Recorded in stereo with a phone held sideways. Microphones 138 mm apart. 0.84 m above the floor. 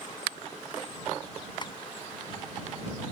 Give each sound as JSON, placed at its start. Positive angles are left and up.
{"t": 1.6, "sound": "tapping", "side_deg": 35}